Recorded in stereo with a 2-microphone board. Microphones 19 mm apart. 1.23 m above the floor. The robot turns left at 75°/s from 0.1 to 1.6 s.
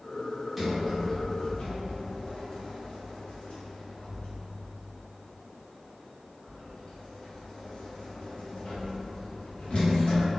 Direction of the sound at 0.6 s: 10° right (ahead or behind).